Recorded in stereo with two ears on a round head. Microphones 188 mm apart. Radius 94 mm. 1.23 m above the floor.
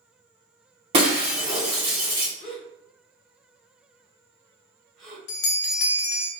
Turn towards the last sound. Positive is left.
turn(degrees=60)  # may be behind; listen again after turning